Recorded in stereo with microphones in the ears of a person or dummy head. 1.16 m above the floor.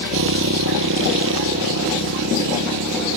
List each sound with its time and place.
0.0 s a motorcycle: 75° right (ahead or behind)